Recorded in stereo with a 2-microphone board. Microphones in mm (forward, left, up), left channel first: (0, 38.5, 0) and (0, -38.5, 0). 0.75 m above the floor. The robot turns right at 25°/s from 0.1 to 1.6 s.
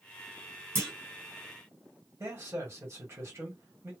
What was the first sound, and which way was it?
A clunk, 30° right (ahead or behind).